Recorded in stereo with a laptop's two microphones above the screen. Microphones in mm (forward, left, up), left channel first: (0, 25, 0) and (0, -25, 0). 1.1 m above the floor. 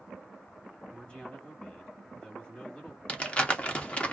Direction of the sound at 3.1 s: 25° left (ahead or behind).